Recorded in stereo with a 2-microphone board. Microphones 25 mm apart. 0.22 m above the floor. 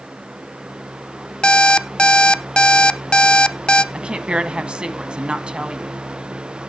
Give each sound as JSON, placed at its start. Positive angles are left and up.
{"t": 1.4, "sound": "an alarm clock", "side_deg": 40, "distance_m": 0.5}
{"t": 3.9, "sound": "a woman speaking", "side_deg": -40, "distance_m": 1.6}